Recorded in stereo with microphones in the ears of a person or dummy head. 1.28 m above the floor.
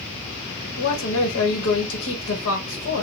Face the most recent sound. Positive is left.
turn(degrees=80)